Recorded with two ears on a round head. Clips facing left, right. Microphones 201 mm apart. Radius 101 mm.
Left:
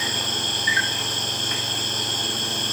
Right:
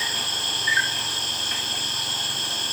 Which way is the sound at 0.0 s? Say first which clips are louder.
Left 6 dB; 40° left (ahead or behind).